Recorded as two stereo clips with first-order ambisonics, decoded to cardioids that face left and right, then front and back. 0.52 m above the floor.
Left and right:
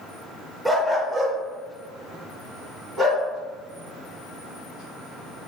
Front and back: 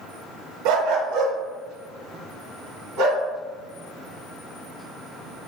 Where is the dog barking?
Straight behind, 0.6 m; by 3.2 s 165° right, 1.9 m.